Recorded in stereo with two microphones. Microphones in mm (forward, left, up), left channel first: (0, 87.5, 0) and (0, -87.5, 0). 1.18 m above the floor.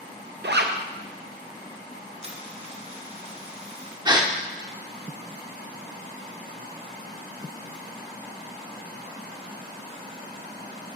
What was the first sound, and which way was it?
A zipper, 75° right (ahead or behind).